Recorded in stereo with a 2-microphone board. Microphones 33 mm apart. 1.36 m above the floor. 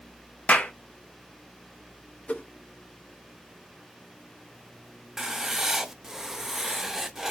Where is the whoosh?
45° left (ahead or behind), 0.8 m.